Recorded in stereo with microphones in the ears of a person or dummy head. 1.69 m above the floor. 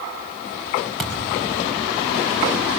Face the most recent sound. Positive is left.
turn(degrees=0)  # may be behind; listen again after turning